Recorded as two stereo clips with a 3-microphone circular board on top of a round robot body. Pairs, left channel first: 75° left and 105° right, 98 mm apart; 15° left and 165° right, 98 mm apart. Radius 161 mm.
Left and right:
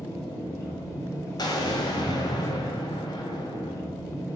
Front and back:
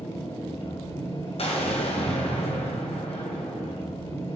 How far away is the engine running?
About 4 m.